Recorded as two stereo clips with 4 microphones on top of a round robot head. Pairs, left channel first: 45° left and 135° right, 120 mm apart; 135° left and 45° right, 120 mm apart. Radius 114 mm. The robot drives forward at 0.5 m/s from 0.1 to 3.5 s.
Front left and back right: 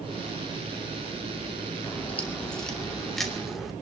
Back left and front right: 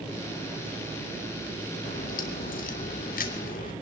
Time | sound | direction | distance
1.9 | a crack | 120° left | 2.5 m